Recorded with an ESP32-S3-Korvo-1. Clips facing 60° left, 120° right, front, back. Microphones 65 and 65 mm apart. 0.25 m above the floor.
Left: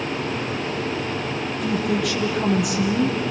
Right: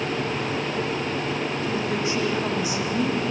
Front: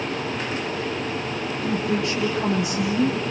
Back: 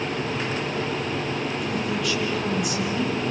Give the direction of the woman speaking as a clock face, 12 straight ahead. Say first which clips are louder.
Left 6 dB, front 2 dB; 10 o'clock.